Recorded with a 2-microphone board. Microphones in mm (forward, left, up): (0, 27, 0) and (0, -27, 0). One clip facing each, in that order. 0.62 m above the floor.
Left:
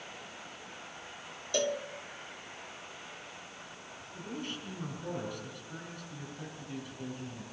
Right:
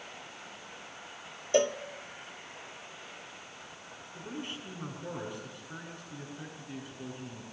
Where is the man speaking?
20° right (ahead or behind), 7 m.